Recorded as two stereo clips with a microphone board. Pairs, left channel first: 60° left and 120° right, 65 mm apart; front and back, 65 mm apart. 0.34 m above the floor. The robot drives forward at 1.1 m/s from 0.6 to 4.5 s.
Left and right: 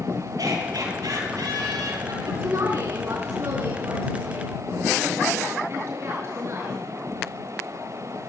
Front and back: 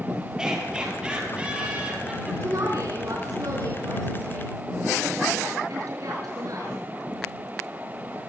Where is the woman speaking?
150° right, 4 m; by 6.7 s 160° right, 6.5 m.